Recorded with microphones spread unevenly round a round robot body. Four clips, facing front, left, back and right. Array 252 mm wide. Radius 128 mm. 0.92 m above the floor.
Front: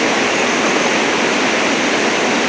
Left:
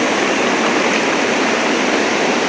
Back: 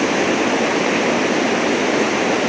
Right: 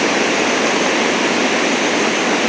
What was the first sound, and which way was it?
Only background noise.